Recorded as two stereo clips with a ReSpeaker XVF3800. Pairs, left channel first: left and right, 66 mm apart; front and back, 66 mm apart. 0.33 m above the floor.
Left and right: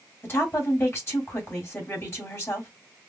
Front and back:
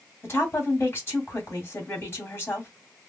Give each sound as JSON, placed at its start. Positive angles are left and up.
{"t": 0.2, "sound": "a woman speaking", "azimuth_deg": 45, "distance_m": 2.5}